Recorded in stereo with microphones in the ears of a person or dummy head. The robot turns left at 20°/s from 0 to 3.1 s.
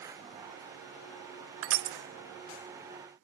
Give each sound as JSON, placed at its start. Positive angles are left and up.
{"t": 1.6, "sound": "crushing", "side_deg": -80, "distance_m": 0.7}